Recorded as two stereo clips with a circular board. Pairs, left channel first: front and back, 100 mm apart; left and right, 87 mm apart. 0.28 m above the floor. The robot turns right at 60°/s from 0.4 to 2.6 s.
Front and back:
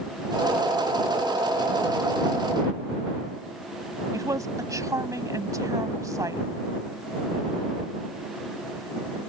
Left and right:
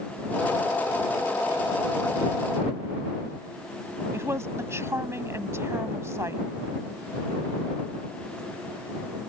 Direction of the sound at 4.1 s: 135° right.